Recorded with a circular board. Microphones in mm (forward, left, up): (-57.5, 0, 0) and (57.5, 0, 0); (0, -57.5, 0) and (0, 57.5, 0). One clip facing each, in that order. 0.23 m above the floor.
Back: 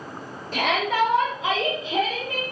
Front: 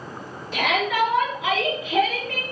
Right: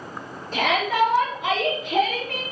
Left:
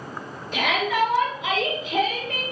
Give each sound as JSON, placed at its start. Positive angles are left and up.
{"t": 0.5, "sound": "a shout", "azimuth_deg": -135, "distance_m": 3.5}